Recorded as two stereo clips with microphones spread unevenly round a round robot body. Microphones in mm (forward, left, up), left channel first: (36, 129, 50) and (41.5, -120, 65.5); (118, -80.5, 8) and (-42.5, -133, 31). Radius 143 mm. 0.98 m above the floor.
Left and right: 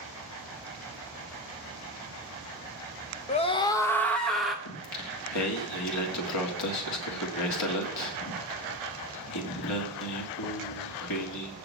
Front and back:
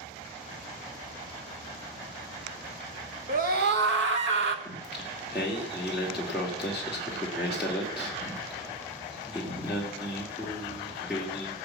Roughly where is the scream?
Behind left.